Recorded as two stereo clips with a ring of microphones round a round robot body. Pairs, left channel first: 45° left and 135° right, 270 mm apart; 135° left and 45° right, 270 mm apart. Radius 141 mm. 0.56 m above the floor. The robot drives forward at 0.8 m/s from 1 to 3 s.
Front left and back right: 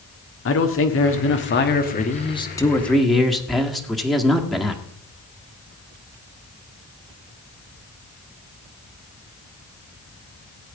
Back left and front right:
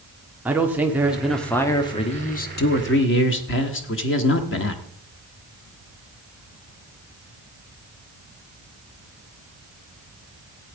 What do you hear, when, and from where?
0.5 s a man speaking: 35° left, 1.6 m; by 4.8 s 135° left, 1.4 m